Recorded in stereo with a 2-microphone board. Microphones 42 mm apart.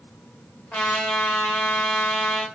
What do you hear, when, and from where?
0.7 s a trumpet: 35° left (ahead or behind), 0.9 m